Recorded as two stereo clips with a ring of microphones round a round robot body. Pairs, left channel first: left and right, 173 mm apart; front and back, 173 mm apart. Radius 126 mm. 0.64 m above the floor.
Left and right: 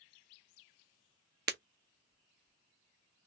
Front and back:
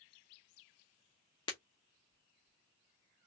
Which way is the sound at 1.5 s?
70° right.